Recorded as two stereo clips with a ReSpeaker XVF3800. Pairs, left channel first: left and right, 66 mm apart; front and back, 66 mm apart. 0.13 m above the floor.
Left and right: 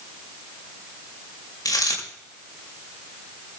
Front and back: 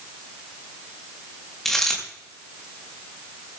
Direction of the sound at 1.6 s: 85° left.